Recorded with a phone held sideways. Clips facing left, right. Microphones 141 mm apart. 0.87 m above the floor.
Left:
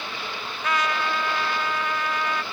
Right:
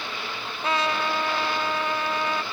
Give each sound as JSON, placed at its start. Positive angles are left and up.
{"t": 0.6, "sound": "a trumpet", "side_deg": -30, "distance_m": 0.6}